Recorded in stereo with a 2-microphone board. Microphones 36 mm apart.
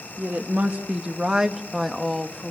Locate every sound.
0.2 s a woman speaking: 50° right (ahead or behind), 1.4 m; by 2.5 s 10° left (ahead or behind), 1.5 m